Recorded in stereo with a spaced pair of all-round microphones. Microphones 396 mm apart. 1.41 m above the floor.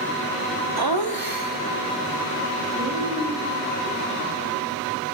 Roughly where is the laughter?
Right.